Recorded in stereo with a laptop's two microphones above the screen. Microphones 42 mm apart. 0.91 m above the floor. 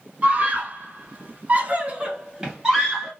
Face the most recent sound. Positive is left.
turn(degrees=-10)  # may be behind; listen again after turning